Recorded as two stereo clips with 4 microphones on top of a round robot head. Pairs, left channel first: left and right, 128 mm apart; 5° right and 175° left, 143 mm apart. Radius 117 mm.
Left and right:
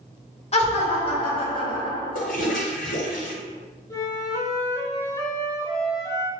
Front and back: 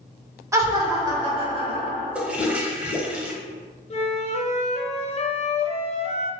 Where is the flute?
30° left, 0.9 m.